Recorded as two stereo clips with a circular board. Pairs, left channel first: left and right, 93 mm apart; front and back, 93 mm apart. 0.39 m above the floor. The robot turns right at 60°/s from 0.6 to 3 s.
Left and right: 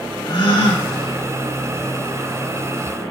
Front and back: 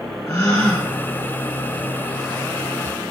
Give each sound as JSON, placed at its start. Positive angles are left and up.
{"t": 0.3, "sound": "a gasp", "azimuth_deg": 65, "distance_m": 1.0}